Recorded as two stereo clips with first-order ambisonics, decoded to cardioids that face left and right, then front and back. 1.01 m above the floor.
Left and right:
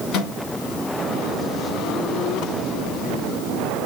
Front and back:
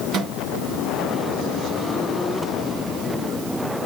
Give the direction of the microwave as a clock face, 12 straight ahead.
8 o'clock.